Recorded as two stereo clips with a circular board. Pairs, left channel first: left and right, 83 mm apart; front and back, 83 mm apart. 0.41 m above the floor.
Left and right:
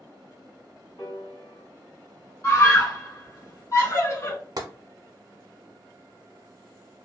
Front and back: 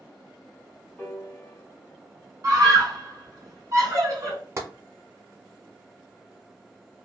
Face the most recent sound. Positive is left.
turn(degrees=-125)